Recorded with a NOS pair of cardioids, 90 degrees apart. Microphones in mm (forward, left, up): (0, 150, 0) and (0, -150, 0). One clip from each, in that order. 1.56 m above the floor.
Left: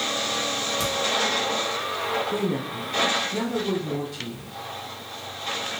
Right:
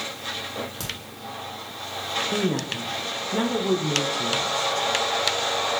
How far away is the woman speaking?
About 0.6 m.